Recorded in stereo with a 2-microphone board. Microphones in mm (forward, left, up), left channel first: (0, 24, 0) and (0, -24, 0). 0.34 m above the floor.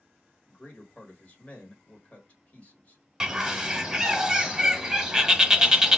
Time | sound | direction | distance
0.5 | a man speaking | 30° left (ahead or behind) | 1.5 m
3.2 | a bird | 10° right (ahead or behind) | 0.7 m